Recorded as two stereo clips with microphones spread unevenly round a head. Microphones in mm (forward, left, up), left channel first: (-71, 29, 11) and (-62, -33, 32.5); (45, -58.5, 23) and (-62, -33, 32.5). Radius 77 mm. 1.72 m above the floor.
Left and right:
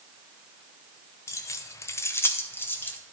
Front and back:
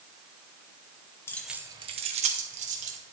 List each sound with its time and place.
1.3 s keys jangling: 45° left, 0.7 m; by 3.0 s 160° left, 1.9 m